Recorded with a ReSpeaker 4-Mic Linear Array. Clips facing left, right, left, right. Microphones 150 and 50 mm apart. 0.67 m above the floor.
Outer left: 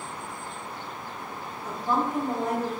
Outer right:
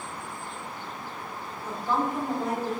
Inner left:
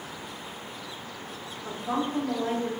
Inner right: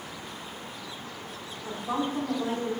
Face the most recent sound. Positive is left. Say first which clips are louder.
# outer left 1 dB, even
turn(degrees=45)  # may be behind; listen again after turning